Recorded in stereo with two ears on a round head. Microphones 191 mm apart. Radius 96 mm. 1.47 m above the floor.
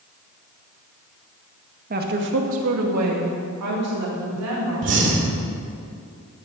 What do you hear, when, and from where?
1.9 s a woman speaking: 40° right (ahead or behind), 1.9 m; by 5.0 s 65° right (ahead or behind), 5 m
4.8 s breathing: 55° right (ahead or behind), 2.5 m